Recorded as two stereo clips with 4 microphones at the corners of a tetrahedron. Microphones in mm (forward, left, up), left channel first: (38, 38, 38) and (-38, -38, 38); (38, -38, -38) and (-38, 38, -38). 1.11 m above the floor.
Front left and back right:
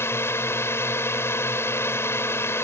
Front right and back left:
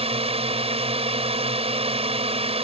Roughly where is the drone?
Left.